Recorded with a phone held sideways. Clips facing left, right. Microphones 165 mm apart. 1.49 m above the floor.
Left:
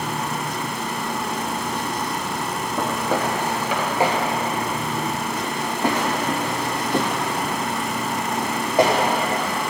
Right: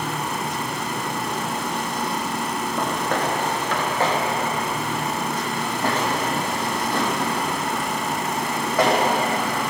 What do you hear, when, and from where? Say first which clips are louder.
2.8 s footsteps: left 2 dB; 5° left (ahead or behind), 1.5 m; by 8.9 s 20° left (ahead or behind), 4.5 m